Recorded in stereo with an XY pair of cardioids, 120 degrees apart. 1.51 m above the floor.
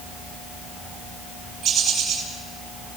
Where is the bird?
50° right, 6.5 m.